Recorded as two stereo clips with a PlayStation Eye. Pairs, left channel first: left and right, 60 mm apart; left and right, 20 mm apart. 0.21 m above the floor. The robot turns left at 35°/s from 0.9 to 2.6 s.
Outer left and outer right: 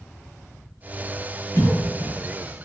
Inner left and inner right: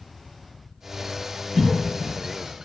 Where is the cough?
55° left (ahead or behind), 1.9 m.